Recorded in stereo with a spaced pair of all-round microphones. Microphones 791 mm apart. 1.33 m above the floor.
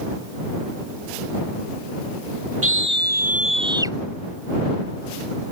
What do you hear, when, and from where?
2.6 s a scream: 15° right (ahead or behind); by 4.0 s 5° right (ahead or behind)